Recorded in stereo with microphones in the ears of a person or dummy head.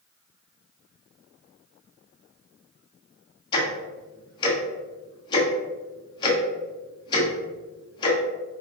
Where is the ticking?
30° left (ahead or behind), 0.9 m.